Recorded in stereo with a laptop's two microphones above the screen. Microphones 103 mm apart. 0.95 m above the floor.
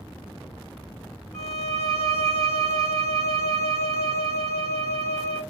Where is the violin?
85° left, 1.6 m.